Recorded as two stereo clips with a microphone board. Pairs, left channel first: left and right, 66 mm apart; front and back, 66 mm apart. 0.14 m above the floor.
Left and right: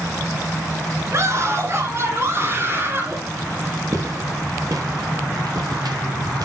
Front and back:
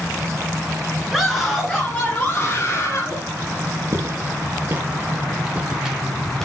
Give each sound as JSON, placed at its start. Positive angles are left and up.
{"t": 1.1, "sound": "a scream", "azimuth_deg": -90, "distance_m": 2.0}
{"t": 3.9, "sound": "footsteps", "azimuth_deg": -130, "distance_m": 4.5}